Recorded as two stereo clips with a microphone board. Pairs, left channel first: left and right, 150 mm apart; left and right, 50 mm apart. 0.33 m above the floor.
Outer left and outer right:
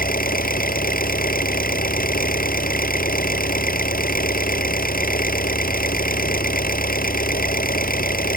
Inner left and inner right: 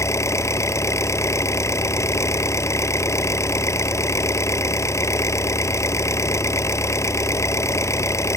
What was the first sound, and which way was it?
An engine running, 75° left (ahead or behind).